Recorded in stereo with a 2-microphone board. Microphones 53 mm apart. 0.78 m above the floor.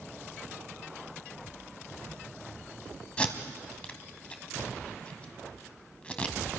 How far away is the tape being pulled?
About 1.6 m.